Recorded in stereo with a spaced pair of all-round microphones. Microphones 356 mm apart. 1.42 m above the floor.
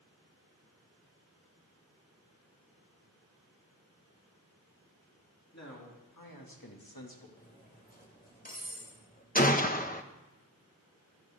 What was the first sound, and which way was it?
A man speaking, 50° left (ahead or behind).